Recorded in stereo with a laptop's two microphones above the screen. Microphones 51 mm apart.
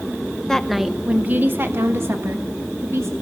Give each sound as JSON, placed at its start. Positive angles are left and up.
{"t": 0.5, "sound": "a woman speaking", "side_deg": 15, "distance_m": 0.9}